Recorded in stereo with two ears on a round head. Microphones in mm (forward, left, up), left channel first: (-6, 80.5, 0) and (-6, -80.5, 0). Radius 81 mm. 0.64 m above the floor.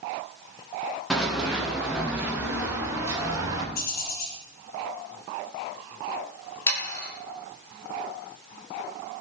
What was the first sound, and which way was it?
Running footsteps, centre (ahead or behind).